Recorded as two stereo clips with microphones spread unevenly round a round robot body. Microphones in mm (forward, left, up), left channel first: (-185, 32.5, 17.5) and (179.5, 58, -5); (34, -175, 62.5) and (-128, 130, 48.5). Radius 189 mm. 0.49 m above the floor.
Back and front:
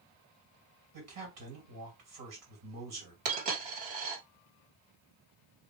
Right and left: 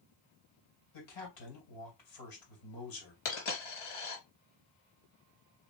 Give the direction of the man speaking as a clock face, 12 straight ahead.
1 o'clock.